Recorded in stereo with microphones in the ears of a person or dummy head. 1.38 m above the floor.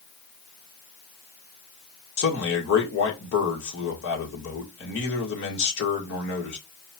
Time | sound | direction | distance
2.2 | a man speaking | 75° left (ahead or behind) | 1.7 m